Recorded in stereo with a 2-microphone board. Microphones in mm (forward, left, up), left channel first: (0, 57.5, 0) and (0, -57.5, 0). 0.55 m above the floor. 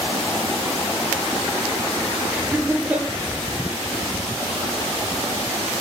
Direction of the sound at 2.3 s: 15° right (ahead or behind).